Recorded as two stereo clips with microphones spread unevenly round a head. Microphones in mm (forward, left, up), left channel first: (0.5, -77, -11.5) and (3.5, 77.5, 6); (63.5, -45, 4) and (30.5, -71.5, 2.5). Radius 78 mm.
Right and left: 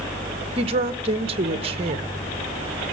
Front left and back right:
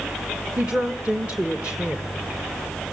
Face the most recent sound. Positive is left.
turn(degrees=140)